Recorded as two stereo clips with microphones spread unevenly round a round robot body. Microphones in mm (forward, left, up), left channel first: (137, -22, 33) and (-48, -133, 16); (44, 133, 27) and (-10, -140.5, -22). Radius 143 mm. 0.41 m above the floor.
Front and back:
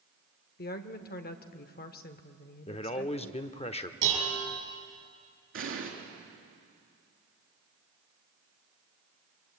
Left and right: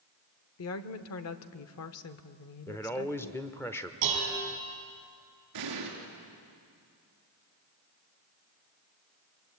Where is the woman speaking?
60° left, 1.0 m.